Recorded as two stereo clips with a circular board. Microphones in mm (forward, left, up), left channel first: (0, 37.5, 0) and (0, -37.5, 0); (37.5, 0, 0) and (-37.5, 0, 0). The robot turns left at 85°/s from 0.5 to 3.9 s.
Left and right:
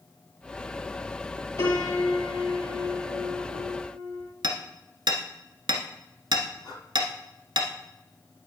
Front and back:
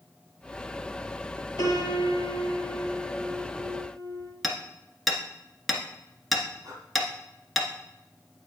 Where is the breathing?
140° right, 2 m.